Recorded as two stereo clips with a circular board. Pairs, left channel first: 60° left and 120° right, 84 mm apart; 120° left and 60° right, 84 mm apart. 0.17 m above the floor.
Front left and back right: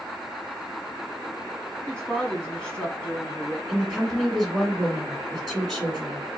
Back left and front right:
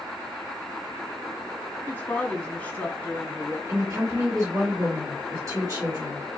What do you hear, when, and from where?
1.9 s a woman speaking: 120° left, 1.2 m
3.7 s a woman speaking: 25° right, 2 m